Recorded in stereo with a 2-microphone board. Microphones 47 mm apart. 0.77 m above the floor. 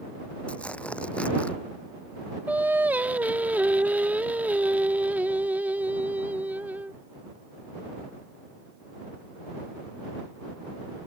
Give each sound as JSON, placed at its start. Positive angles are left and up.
{"t": 0.5, "sound": "tearing paper", "side_deg": 25}
{"t": 2.5, "sound": "singing", "side_deg": -35}